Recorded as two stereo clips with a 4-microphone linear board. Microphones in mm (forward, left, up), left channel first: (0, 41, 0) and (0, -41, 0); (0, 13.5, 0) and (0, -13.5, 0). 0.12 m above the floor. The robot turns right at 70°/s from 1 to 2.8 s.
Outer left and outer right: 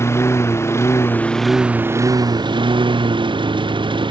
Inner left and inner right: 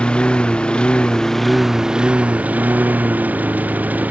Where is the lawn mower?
145° left; by 4.1 s 90° right.